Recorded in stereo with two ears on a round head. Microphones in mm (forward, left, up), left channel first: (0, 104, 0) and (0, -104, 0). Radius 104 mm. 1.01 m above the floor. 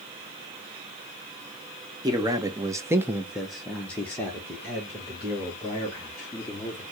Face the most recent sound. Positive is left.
turn(degrees=15)  # may be behind; listen again after turning